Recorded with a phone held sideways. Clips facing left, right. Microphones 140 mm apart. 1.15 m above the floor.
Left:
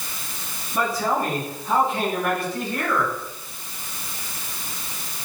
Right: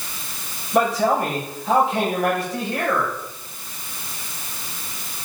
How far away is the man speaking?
About 6 m.